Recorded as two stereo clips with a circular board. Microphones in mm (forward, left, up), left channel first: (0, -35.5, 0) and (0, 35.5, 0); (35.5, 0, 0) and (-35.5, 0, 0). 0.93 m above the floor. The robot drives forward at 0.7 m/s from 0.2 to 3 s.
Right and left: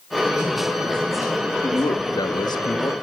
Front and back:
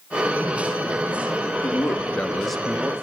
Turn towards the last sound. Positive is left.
turn(degrees=-110)